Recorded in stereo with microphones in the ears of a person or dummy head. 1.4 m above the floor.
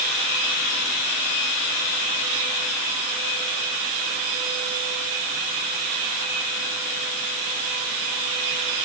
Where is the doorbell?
I don't hear a doorbell.